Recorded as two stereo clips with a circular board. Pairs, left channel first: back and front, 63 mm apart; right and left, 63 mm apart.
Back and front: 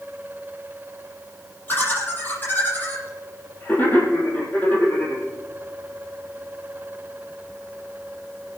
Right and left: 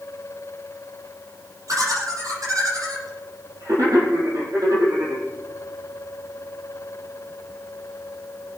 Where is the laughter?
115° left, 7 m.